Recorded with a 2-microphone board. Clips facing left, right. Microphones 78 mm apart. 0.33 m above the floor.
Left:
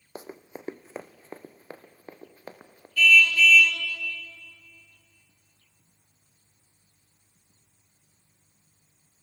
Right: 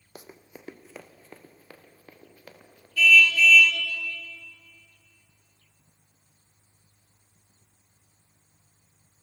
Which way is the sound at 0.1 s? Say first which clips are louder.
Left 6 dB; 30° left (ahead or behind).